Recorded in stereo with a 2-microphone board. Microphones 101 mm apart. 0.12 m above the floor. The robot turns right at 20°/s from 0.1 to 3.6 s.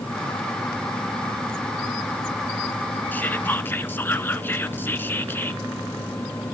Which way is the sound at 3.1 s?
20° left (ahead or behind).